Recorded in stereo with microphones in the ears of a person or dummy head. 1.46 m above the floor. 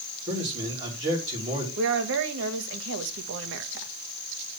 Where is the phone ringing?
I don't hear a phone ringing.